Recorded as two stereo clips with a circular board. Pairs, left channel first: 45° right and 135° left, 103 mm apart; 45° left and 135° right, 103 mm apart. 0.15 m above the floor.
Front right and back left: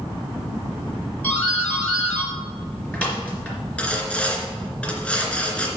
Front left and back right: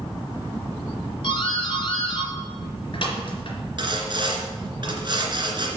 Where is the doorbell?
30° left, 3 m.